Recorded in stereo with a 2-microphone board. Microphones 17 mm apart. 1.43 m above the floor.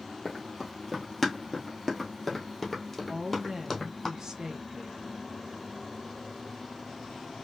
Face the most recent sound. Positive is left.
turn(degrees=-35)  # may be behind; listen again after turning